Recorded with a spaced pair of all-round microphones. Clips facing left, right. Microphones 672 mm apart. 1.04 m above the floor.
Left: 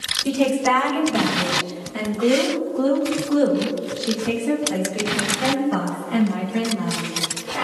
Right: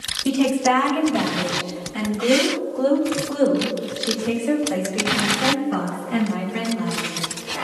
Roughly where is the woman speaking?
Left.